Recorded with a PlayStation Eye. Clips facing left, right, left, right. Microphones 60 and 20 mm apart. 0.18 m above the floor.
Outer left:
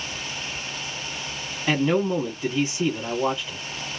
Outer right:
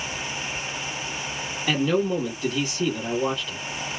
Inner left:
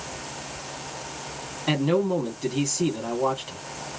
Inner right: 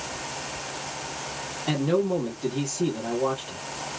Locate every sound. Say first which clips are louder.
1.7 s a man speaking: outer left 1 dB, inner left 1 dB; 20° left (ahead or behind), 1.1 m